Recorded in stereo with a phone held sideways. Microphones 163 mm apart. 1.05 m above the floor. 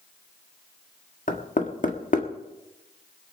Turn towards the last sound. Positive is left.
turn(degrees=55)  # may be behind; listen again after turning